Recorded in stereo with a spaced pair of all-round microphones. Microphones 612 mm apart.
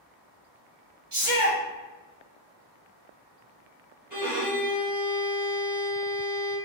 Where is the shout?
55° right (ahead or behind), 1.1 m.